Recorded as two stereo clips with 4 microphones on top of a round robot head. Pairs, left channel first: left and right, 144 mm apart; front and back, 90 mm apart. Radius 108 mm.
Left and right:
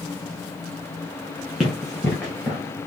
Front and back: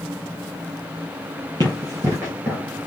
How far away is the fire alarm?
No fire alarm in this recording.